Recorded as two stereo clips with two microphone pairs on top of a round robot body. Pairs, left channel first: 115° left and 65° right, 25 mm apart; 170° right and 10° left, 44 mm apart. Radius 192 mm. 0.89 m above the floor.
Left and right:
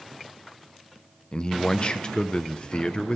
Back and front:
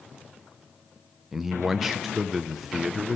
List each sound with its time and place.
1.3 s a man speaking: 85° left, 0.5 m